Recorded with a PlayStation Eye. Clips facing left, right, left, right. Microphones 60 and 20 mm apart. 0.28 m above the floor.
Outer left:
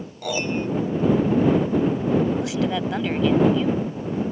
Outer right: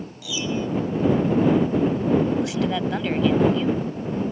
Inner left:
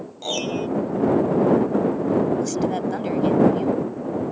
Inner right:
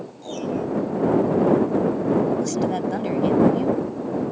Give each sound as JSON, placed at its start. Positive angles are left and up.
{"t": 0.2, "sound": "a piano", "side_deg": 55}
{"t": 2.4, "sound": "a woman speaking", "side_deg": 0}